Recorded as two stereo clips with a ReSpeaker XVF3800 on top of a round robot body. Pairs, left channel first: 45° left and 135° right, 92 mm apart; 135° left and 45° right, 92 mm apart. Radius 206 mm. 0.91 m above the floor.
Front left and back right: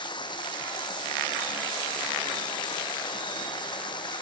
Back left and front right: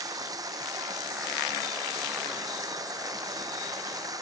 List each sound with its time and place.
0.0 s running water: 5° left